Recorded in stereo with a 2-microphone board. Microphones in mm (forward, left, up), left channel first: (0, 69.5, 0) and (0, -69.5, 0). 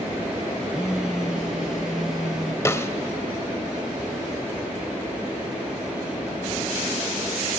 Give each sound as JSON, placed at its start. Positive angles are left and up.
{"t": 0.7, "sound": "a phone buzzing", "side_deg": -5, "distance_m": 1.1}
{"t": 2.6, "sound": "a snare drum", "side_deg": 20, "distance_m": 1.0}